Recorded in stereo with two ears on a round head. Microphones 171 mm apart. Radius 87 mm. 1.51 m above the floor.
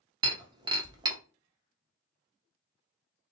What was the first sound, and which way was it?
Breaking glass, 20° right (ahead or behind).